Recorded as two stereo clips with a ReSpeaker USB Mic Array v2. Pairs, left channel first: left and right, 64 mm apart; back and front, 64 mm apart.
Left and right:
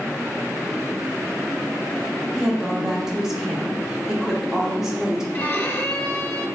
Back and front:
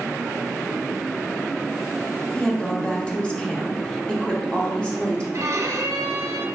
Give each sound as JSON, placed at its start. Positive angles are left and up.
{"t": 2.4, "sound": "a woman speaking", "azimuth_deg": -155, "distance_m": 0.7}
{"t": 5.3, "sound": "a violin", "azimuth_deg": 35, "distance_m": 0.6}